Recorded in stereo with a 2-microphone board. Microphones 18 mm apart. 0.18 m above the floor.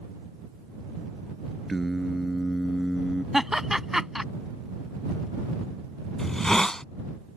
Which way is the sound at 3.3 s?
20° right (ahead or behind).